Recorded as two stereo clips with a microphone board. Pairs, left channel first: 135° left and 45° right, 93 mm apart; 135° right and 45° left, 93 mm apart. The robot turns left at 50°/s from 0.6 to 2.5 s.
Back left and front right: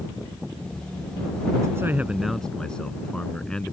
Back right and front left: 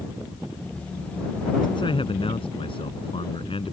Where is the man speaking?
100° right; by 3.7 s 145° right.